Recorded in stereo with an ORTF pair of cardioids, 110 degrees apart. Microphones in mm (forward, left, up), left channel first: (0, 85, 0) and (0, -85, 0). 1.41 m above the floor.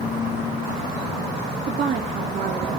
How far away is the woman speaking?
About 2.5 m.